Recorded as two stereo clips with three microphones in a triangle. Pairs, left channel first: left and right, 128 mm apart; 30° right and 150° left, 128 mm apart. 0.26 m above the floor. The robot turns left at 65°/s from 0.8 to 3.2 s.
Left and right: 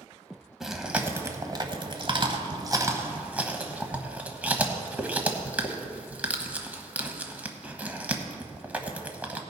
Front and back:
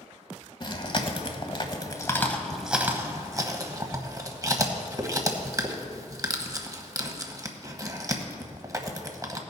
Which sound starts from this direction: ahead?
Chewing, at 0.6 s.